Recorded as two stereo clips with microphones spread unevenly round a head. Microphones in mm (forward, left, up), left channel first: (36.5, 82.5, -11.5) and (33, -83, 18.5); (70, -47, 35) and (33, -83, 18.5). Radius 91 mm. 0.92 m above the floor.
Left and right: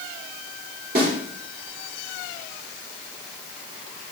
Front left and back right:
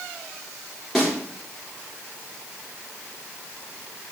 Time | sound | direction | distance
0.9 | a snare drum | 55° right | 3.5 m